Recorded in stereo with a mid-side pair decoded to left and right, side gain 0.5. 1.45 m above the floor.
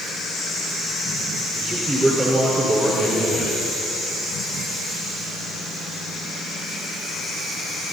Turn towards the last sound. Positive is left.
turn(degrees=-15)